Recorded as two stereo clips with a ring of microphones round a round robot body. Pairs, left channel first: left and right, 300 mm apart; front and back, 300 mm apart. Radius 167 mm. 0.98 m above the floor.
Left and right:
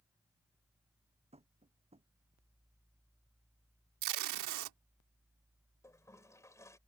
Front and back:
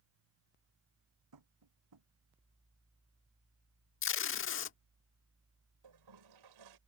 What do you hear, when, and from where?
1.3 s tapping: 160° right
4.0 s tape being pulled: 50° right
5.8 s a toilet flushing: 170° left